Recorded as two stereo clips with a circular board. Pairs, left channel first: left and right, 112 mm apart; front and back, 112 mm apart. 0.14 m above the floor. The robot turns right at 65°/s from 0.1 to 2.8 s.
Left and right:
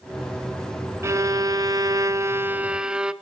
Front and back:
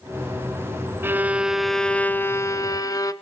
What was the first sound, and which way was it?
A violin, 130° right.